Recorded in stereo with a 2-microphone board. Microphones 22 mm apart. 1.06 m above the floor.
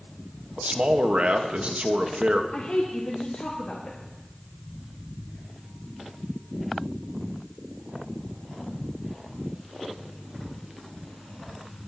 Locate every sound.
0.6 s a man speaking: 65° right (ahead or behind), 1.1 m
2.5 s a woman speaking: 80° left, 1.6 m